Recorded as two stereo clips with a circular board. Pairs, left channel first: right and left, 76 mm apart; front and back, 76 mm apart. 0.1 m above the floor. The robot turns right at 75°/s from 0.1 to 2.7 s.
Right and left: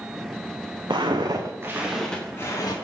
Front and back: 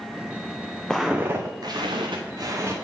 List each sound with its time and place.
0.9 s footsteps: 85° left, 0.9 m; by 2.8 s 120° right, 1.8 m